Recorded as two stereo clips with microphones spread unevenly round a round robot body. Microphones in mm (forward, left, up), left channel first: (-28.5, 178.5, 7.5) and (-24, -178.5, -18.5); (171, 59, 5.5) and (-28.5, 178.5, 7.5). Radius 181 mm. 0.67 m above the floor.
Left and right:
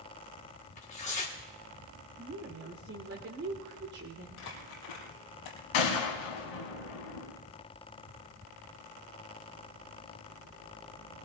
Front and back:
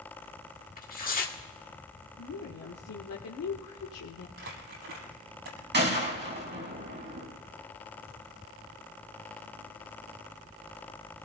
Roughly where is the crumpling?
Behind left.